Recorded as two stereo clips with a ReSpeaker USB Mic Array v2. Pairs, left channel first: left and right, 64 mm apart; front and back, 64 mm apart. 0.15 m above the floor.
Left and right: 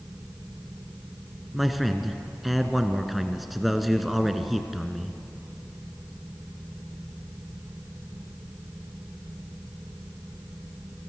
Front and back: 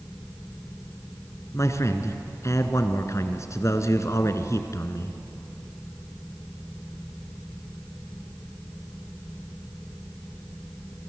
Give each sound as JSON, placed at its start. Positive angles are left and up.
{"t": 1.5, "sound": "a man speaking", "azimuth_deg": 0, "distance_m": 1.7}